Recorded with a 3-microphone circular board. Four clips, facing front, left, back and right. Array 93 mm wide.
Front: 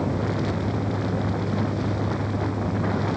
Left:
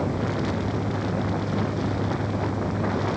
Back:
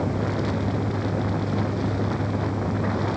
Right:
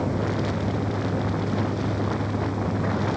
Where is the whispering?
I don't hear whispering.